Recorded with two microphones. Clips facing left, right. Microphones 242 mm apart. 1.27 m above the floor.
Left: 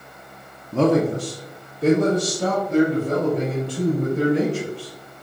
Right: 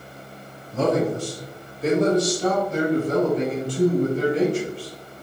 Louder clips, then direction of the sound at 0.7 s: Left 3 dB; 65° left (ahead or behind).